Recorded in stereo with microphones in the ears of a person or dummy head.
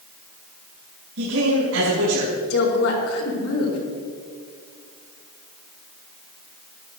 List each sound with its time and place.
1.2 s a man speaking: 70° right (ahead or behind), 5.5 m
2.5 s a woman speaking: 80° left, 4 m